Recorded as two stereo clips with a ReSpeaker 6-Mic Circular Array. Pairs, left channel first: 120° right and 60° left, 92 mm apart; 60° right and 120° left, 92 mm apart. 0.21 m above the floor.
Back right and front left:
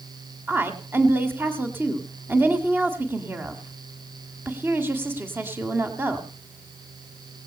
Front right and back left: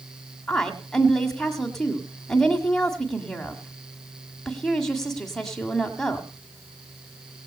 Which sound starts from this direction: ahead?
A woman speaking, at 0.5 s.